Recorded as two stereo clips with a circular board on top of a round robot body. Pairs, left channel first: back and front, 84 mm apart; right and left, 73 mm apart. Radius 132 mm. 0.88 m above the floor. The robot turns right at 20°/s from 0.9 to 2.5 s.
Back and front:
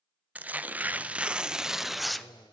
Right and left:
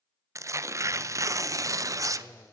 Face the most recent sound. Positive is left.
turn(degrees=100)